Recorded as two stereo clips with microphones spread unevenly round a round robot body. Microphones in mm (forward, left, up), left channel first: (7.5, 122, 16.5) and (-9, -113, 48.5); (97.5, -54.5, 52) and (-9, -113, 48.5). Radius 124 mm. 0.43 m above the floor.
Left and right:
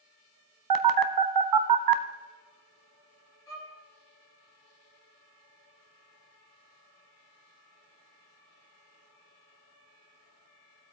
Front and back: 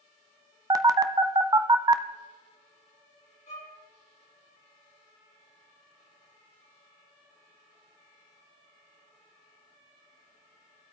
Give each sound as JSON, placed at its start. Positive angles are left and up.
{"t": 0.7, "sound": "a phone buzzing", "azimuth_deg": -90, "distance_m": 0.7}
{"t": 3.5, "sound": "a violin", "azimuth_deg": 10, "distance_m": 4.5}